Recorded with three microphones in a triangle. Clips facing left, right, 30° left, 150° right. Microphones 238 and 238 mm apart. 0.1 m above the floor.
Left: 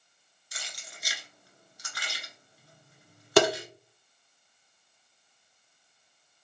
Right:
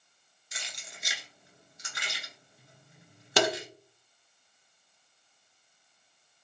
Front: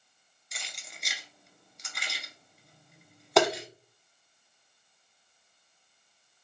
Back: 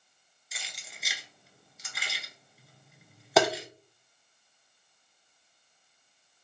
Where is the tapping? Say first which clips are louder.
Left 6 dB, front 1 dB; 125° left, 0.7 m.